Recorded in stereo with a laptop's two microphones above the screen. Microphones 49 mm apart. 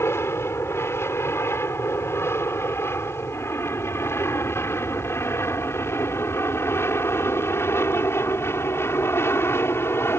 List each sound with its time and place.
0.0 s an aircraft: 60° left (ahead or behind)